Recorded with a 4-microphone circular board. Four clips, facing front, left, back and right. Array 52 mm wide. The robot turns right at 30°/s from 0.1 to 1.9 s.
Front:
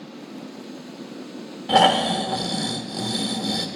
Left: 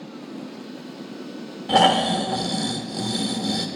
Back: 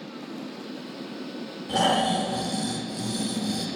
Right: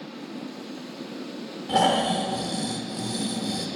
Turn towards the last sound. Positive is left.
turn(degrees=35)